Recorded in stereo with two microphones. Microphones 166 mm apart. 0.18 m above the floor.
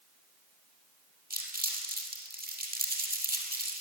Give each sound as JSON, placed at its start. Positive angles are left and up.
{"t": 1.3, "sound": "crumpling", "side_deg": -65, "distance_m": 2.0}